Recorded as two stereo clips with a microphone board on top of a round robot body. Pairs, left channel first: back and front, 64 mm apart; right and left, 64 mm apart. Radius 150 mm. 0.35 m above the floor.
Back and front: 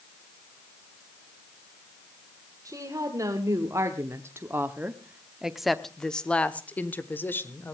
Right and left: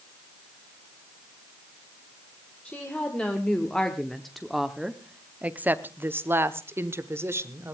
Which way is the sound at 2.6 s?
20° right.